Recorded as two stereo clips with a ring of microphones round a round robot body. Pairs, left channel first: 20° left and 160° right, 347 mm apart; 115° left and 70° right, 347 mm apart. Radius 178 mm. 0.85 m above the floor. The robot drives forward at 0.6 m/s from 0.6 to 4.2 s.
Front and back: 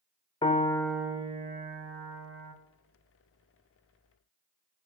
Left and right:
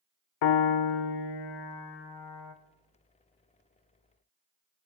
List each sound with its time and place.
0.4 s a piano: 95° left, 0.7 m; by 2.5 s 155° left, 1.4 m